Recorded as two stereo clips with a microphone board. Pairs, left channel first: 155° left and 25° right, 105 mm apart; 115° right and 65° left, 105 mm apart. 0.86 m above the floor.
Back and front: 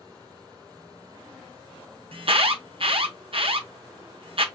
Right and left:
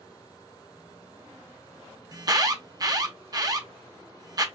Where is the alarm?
10° left, 0.7 m.